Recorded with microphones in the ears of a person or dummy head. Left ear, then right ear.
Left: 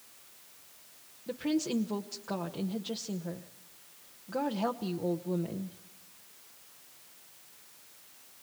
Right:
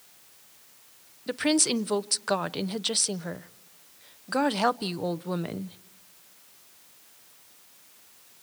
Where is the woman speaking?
55° right (ahead or behind), 0.7 m.